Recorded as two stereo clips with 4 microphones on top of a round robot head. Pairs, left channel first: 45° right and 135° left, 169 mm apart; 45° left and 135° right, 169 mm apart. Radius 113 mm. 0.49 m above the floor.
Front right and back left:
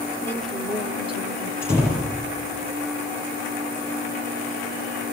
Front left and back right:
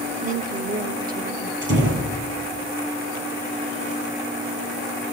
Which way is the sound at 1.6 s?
145° right.